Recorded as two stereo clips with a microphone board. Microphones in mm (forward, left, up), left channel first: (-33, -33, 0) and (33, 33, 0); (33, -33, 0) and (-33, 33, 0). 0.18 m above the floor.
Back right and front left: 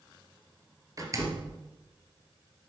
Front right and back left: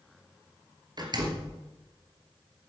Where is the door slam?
95° left, 2.5 m.